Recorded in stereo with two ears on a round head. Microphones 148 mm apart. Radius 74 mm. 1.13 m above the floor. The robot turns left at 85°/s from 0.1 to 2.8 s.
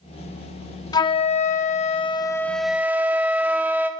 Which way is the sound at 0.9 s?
145° left.